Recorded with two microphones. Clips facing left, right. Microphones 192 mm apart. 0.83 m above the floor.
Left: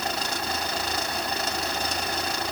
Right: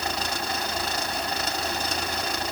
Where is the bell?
No bell in this recording.